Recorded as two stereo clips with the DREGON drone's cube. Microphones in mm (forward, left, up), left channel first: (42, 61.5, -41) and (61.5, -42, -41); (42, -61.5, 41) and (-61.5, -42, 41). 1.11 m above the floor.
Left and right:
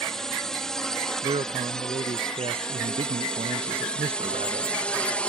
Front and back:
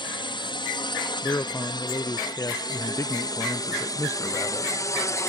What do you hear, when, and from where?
0.0 s a drone: 15° left; by 5.3 s 30° left
1.2 s a man speaking: 75° right